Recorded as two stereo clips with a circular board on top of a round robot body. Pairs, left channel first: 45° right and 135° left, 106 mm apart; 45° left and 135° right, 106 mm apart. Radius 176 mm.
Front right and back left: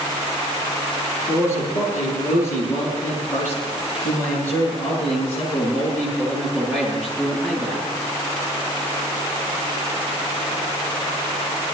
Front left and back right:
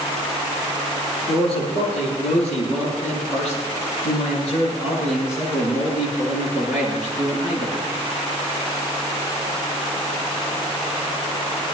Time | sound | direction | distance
1.3 | a man speaking | 15° left | 10 m